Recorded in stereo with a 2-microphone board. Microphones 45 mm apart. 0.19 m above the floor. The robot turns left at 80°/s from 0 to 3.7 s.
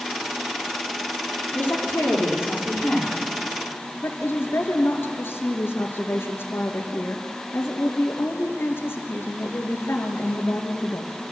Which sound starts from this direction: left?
A woman speaking, at 4.0 s.